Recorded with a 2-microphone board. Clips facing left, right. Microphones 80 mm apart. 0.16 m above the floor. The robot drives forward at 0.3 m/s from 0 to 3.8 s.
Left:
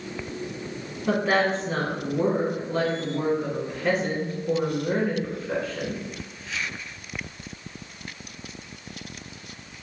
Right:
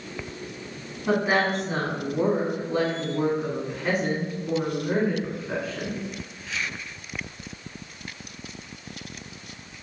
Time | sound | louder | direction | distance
1.1 | a woman speaking | even | 15° right (ahead or behind) | 1.0 m